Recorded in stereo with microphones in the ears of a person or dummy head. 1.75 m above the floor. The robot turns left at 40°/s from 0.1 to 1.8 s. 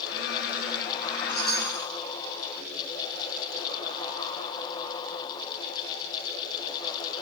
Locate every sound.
1.3 s a chime: 50° left (ahead or behind), 6 m; by 1.9 s 70° left (ahead or behind), 6 m